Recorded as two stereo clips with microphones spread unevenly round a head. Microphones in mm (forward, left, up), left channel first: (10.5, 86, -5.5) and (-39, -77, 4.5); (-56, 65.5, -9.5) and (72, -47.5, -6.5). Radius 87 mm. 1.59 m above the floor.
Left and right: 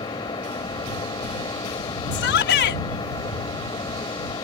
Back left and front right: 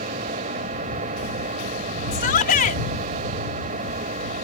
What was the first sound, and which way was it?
An engine running, 5° left.